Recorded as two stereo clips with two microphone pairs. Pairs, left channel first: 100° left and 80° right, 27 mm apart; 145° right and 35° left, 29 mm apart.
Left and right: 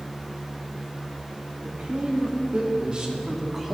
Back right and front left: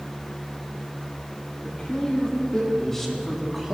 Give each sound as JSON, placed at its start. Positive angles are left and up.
{"t": 1.6, "sound": "a man speaking", "azimuth_deg": -100, "distance_m": 2.0}